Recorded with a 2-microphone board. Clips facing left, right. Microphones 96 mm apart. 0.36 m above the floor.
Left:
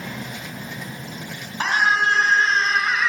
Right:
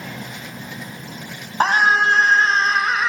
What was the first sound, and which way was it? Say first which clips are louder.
A scream: right 4 dB; 45° right (ahead or behind).